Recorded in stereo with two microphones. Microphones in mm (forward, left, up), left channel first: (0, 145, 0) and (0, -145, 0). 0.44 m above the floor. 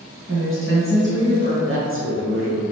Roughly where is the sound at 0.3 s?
Right.